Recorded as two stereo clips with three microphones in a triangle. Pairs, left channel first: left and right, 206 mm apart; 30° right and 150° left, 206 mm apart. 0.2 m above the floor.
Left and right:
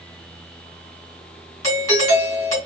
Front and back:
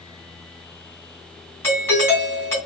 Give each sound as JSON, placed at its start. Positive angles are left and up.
{"t": 1.6, "sound": "a doorbell", "azimuth_deg": 35, "distance_m": 2.0}